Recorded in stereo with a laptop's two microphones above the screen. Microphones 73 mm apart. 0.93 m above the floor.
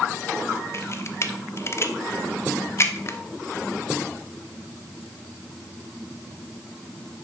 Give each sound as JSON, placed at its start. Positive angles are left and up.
{"t": 0.7, "sound": "a camera shutter", "side_deg": 40, "distance_m": 0.5}